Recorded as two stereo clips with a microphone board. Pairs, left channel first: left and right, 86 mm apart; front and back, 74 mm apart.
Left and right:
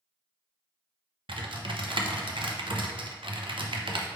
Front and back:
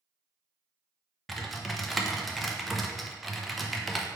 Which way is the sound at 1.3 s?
90° right.